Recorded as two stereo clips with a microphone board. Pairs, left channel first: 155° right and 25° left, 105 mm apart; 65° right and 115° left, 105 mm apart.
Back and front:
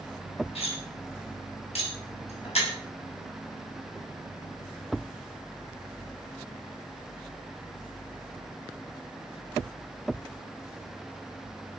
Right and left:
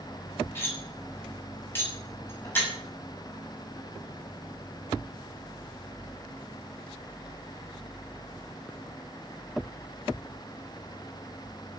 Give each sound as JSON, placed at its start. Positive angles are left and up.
{"t": 0.6, "sound": "cutlery clinking", "azimuth_deg": -135, "distance_m": 7.0}